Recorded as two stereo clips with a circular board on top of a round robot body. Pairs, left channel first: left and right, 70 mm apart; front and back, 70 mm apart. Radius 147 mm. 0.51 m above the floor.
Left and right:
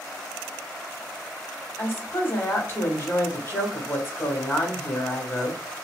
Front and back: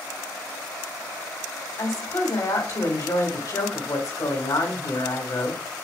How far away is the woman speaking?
About 3 m.